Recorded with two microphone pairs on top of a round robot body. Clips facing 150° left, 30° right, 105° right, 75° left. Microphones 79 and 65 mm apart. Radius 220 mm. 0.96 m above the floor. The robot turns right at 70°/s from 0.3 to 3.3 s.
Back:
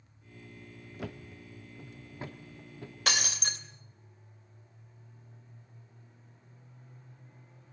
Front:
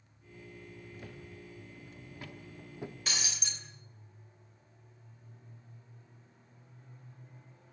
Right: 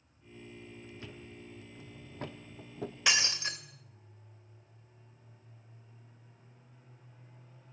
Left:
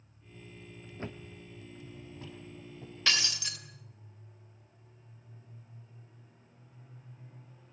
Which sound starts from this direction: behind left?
A thud, at 1.0 s.